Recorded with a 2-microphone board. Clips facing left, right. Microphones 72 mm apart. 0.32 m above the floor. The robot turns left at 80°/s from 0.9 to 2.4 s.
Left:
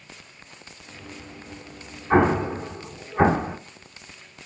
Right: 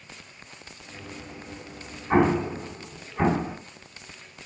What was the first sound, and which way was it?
An explosion, centre (ahead or behind).